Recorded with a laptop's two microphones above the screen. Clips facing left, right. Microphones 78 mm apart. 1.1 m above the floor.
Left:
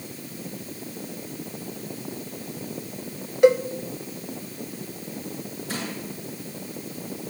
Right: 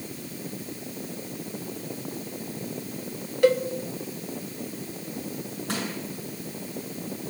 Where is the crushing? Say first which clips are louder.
Right 2 dB; 70° right (ahead or behind), 7.5 m.